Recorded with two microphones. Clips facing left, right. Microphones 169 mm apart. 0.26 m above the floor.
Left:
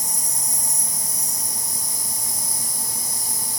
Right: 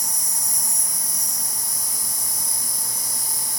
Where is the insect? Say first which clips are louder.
Left 2 dB; 5° left (ahead or behind), 1.4 m.